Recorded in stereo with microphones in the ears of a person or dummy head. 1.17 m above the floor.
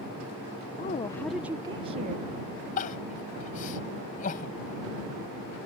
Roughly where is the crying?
Left.